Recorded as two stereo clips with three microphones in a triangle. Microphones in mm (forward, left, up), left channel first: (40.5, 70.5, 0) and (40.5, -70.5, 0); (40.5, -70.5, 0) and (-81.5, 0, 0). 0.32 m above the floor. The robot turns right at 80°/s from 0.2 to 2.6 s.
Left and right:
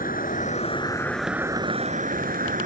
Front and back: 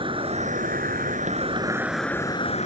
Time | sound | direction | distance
0.0 | an insect | 100° left | ?